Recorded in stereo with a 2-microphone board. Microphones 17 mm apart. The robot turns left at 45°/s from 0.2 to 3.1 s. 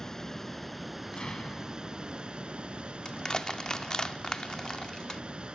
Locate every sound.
0.0 s running water: 30° left; by 5.6 s 100° right
1.1 s an explosion: 120° left; by 2.0 s 80° left
3.0 s crushing: 45° left (ahead or behind)